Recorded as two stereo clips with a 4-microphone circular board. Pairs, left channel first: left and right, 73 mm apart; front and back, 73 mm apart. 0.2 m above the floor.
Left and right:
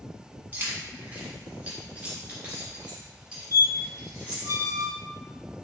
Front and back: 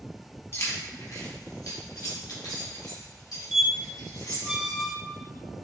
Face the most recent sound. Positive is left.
turn(degrees=-100)